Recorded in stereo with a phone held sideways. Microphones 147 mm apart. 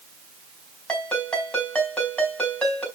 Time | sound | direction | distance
0.9 | a ringtone | 10° left (ahead or behind) | 4.5 m